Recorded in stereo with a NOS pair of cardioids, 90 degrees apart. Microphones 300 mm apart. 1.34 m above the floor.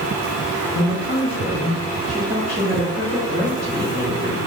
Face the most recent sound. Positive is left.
turn(degrees=-30)